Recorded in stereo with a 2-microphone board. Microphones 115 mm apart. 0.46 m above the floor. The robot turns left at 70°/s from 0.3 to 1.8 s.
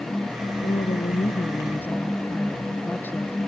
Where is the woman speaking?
100° left; by 3.4 s 15° left.